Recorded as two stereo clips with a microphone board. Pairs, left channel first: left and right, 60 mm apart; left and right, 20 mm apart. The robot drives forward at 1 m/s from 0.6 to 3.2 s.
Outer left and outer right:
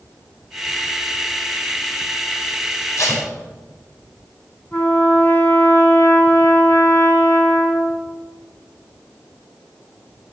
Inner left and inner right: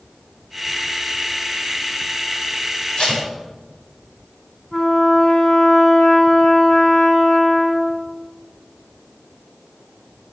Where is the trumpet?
30° left (ahead or behind), 3.5 m.